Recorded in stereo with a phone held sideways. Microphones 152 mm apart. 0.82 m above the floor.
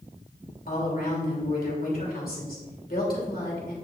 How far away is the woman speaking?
About 2.5 m.